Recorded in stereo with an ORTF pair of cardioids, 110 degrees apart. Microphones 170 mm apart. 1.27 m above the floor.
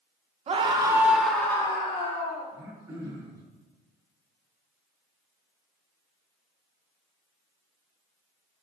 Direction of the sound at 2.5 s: 20° right.